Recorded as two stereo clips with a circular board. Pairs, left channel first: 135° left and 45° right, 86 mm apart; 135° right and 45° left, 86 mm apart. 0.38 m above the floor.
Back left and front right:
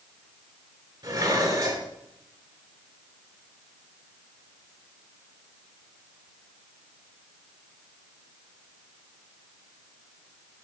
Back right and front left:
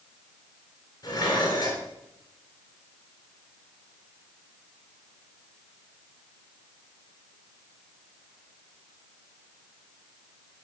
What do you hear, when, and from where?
1.0 s dishes clattering: 90° right, 4 m